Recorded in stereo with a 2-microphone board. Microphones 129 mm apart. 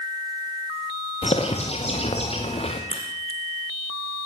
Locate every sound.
1.2 s a bird: 50° left (ahead or behind), 5 m
2.9 s a crack: 50° left (ahead or behind), 6 m